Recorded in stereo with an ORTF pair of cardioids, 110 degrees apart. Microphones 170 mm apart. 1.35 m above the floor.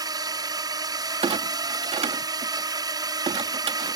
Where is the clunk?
35° right.